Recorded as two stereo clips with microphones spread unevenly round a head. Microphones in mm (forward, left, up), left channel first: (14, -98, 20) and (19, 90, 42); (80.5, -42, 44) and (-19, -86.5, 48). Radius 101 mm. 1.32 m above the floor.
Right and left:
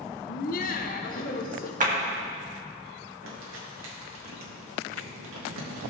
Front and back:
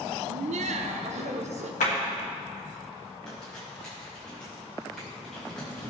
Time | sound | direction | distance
0.3 | laughter | 140° right | 0.7 m
1.8 | a clap | 40° left | 1.7 m
3.2 | crumpling | 110° left | 2.5 m